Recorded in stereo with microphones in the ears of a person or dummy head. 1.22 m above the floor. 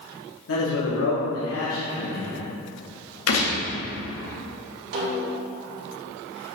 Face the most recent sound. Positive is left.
turn(degrees=-60)  # may be behind; listen again after turning